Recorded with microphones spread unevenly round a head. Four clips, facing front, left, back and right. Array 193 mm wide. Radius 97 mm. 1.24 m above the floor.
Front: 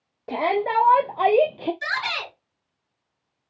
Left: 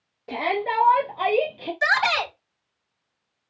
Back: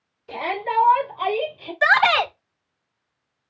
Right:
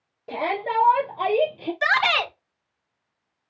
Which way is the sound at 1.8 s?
175° right.